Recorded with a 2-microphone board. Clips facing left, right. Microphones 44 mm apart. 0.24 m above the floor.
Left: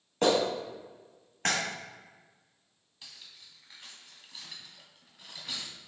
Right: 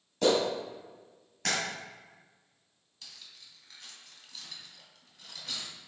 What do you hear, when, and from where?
0.2 s a clap: 40° left (ahead or behind), 1.6 m
3.0 s cutlery clinking: 15° left (ahead or behind), 1.1 m